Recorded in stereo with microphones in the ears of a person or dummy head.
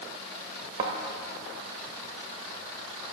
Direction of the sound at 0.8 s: 25° right (ahead or behind).